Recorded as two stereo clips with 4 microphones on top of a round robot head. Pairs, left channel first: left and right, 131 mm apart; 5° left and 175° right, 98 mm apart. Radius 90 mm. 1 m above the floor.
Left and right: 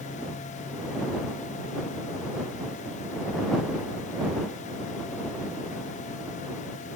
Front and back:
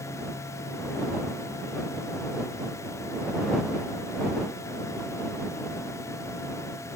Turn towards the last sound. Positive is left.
No sound to turn to.